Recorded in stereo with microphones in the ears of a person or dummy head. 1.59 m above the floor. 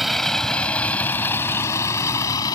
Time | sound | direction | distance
0.0 | a vehicle | 5° right (ahead or behind) | ?